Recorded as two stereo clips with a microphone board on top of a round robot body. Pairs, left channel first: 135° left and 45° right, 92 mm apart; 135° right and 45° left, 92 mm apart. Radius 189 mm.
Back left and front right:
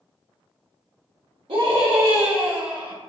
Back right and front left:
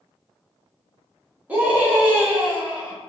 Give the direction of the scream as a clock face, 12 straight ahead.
1 o'clock.